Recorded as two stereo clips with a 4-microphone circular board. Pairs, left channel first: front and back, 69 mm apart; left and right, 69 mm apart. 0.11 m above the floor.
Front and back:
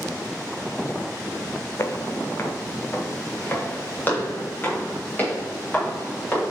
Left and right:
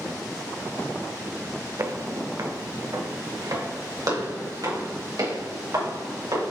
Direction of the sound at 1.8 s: 50° right.